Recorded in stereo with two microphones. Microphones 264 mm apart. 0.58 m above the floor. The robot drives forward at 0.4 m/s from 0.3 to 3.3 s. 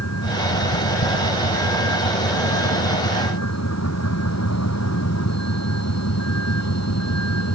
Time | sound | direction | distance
0.0 | a vehicle | 80° left | ?